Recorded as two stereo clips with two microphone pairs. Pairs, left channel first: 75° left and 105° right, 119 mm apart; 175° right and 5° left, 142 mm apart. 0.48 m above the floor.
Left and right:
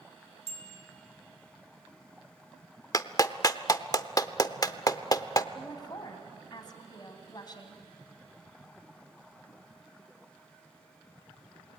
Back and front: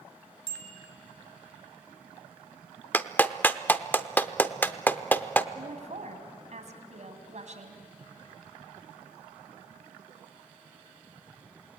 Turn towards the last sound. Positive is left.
turn(degrees=30)